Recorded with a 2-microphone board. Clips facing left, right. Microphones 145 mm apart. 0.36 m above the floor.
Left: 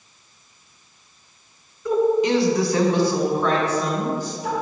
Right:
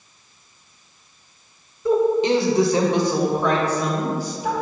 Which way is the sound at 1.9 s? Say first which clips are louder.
Right 1 dB; 30° right (ahead or behind).